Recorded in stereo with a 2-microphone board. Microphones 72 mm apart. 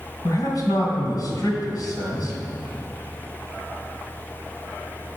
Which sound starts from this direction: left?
A man speaking, at 0.2 s.